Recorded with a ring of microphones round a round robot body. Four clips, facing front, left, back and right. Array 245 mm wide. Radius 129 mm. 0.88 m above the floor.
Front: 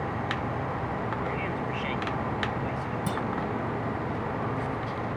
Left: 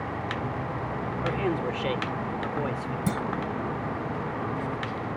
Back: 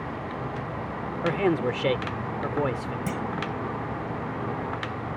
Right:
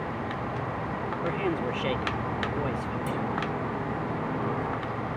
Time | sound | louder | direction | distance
1.2 | a man speaking | left 1 dB, back 7 dB | straight behind | ?
3.1 | a clunk | left 4 dB, even | 100° left | ?